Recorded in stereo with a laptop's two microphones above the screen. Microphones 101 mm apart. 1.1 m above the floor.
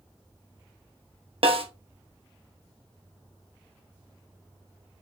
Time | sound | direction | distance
1.4 | a snare drum | 65° right (ahead or behind) | 0.9 m